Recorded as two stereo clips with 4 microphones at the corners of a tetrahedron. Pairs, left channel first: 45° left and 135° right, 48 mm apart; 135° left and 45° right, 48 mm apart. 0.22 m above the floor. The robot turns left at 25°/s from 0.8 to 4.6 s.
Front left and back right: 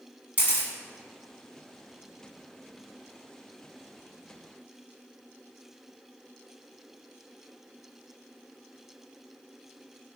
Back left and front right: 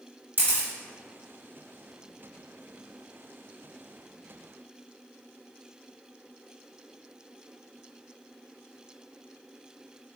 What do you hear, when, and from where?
0.4 s a camera shutter: 85° right, 1.9 m